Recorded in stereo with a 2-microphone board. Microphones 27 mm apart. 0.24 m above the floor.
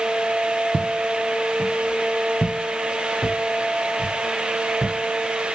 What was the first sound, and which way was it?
Footsteps, 70° right (ahead or behind).